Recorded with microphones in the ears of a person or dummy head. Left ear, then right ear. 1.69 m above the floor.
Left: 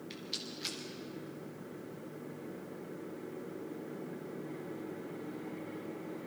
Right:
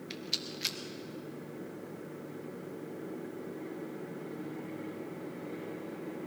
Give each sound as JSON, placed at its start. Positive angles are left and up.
{"t": 0.1, "sound": "a rattle", "side_deg": -15, "distance_m": 1.0}